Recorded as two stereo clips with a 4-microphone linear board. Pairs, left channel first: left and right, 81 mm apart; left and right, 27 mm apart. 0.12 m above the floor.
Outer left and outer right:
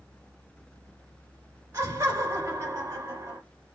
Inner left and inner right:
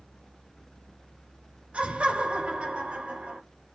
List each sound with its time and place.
1.7 s laughter: 40° right (ahead or behind), 1.5 m